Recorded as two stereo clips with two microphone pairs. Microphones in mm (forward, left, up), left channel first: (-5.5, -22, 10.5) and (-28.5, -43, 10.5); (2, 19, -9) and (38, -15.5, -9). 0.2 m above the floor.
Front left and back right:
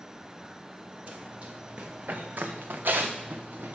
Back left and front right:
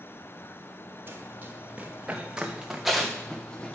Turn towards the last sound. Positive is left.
turn(degrees=-150)